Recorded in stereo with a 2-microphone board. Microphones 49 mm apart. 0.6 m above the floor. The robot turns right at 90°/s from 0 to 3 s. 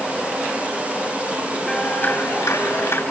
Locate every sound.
1.7 s a clap: 10° left, 8.5 m; by 3.0 s 130° left, 8.5 m